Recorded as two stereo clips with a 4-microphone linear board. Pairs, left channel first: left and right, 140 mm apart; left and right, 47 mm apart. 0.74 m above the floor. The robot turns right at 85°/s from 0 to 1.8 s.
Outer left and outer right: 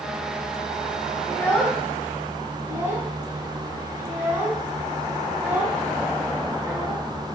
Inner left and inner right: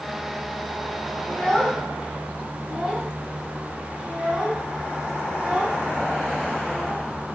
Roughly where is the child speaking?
Left.